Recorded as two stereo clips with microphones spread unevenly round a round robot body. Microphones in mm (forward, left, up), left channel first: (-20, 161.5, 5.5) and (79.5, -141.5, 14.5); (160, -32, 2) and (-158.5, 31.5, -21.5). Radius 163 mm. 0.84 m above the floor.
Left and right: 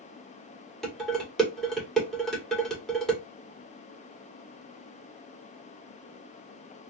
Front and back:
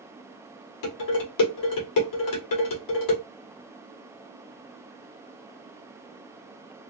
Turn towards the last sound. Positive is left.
turn(degrees=20)